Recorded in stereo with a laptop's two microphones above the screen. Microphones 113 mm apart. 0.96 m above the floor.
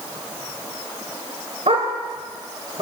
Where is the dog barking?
70° right (ahead or behind), 2 m; by 2.8 s 55° right (ahead or behind), 1.8 m.